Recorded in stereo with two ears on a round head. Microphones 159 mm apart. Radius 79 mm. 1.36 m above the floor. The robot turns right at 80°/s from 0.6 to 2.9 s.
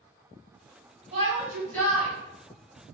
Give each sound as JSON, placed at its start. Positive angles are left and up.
{"t": 1.1, "sound": "a shout", "azimuth_deg": -40, "distance_m": 2.0}